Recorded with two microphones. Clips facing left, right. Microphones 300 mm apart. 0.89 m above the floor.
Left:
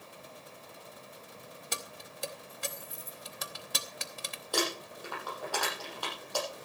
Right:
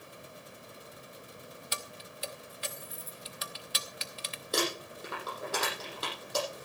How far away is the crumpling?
About 7.5 m.